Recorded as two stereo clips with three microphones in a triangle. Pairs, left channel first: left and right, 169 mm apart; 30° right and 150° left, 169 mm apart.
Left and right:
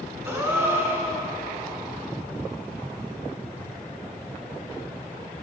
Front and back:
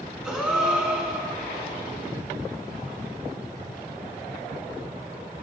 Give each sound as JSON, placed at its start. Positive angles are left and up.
{"t": 0.2, "sound": "a gasp", "azimuth_deg": -130, "distance_m": 1.4}